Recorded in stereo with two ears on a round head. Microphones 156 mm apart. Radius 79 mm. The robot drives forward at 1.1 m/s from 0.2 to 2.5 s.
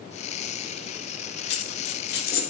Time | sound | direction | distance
1.5 | a dropped coin | 65° left (ahead or behind) | 1.1 m